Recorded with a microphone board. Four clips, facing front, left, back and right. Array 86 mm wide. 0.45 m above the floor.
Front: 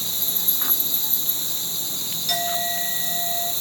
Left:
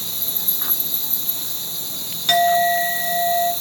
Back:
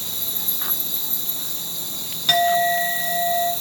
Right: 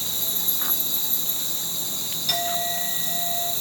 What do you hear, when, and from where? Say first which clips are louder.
0.0 s an insect: even, front 1 dB; 10° left, 3.5 m
2.3 s a clink: left 13 dB, back 10 dB; 140° left, 3.5 m